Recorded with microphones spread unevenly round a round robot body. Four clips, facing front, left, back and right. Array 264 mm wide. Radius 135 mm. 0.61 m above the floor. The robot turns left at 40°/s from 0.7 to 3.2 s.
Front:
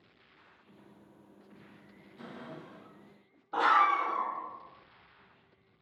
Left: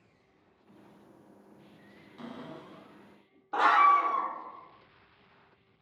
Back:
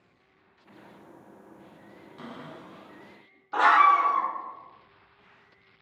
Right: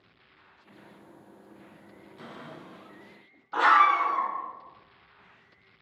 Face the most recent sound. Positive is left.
turn(degrees=65)